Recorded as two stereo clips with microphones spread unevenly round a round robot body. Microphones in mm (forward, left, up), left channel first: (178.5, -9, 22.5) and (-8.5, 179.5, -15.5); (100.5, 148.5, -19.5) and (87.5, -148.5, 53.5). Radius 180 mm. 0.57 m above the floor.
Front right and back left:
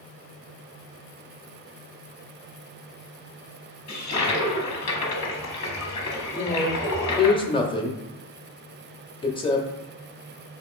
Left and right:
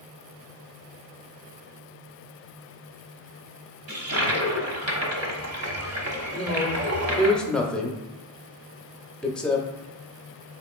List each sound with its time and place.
3.9 s a toilet flushing: 50° right, 1.0 m
6.3 s a man speaking: 25° left, 0.7 m